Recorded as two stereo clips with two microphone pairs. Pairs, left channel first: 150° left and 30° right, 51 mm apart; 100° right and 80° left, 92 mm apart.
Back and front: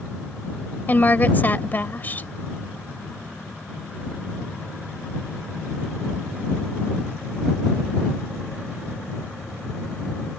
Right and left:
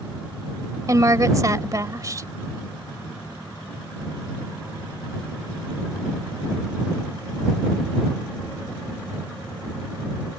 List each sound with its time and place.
0.9 s a woman speaking: 115° left